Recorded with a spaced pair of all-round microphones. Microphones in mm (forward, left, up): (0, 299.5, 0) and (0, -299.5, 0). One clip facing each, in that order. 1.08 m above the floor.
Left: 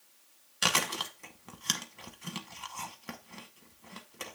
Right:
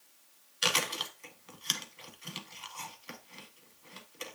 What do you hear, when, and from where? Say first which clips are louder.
0.6 s chewing: left 1 dB; 70° left (ahead or behind), 1.1 m